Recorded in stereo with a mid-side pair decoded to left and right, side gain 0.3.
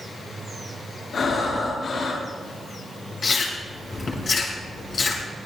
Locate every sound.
1.1 s breathing: 65° left, 9 m
3.2 s chewing: 60° left, 6 m